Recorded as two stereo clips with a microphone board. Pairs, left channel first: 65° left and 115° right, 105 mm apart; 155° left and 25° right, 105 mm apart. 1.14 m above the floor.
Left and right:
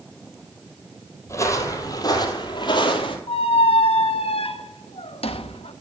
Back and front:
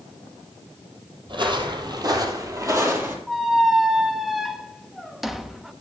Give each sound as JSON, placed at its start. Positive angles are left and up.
{"t": 1.3, "sound": "footsteps", "azimuth_deg": 10, "distance_m": 2.0}
{"t": 3.3, "sound": "a squeak", "azimuth_deg": 65, "distance_m": 0.7}